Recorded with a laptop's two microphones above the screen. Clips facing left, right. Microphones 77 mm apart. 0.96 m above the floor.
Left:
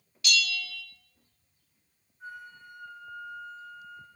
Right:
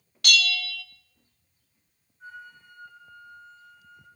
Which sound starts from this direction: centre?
A flute, at 2.2 s.